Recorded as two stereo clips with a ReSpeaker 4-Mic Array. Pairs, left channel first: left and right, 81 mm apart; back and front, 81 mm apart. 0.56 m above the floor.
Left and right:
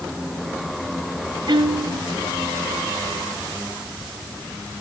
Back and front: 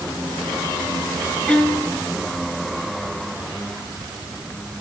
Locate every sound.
1.5 s a violin: 100° right, 1.1 m